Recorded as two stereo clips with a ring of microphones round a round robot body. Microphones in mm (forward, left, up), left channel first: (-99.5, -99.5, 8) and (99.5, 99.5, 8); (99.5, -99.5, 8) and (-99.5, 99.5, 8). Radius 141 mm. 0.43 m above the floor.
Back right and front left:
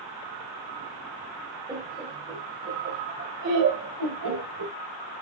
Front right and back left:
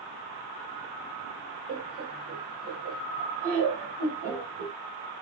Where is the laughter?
115° left, 1.4 m; by 4.8 s 75° left, 2.5 m.